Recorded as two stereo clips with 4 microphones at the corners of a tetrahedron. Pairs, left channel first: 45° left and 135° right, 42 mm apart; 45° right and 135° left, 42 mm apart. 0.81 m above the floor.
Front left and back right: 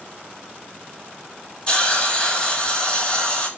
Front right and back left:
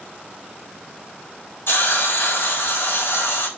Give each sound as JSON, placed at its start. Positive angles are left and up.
{"t": 1.7, "sound": "a hiss", "azimuth_deg": -25, "distance_m": 4.0}